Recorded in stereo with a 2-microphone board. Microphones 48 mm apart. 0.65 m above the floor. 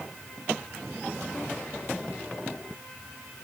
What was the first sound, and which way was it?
Only background noise.